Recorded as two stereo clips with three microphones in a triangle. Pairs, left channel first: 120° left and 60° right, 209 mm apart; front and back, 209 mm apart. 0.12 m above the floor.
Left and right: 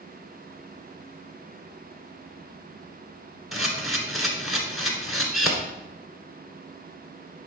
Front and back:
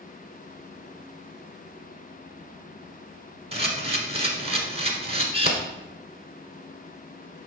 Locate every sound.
3.5 s a camera shutter: 150° right, 1.5 m